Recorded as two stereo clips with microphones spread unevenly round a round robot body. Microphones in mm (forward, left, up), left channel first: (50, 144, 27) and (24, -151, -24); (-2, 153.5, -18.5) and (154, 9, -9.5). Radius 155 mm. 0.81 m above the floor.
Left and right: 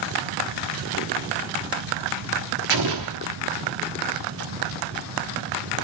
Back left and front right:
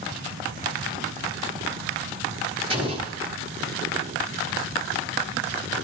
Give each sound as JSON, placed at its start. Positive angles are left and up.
{"t": 2.7, "sound": "an explosion", "azimuth_deg": -115, "distance_m": 1.3}